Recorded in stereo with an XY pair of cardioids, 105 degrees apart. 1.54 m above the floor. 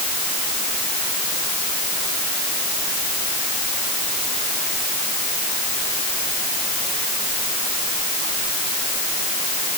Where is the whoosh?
I don't hear a whoosh.